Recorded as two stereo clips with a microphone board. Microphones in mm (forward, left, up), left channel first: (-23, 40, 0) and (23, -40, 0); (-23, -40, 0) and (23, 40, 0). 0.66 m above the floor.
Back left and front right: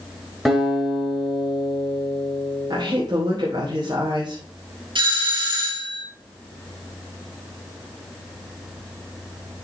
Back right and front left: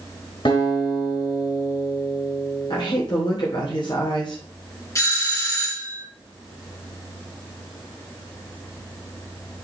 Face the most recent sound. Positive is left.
turn(degrees=-70)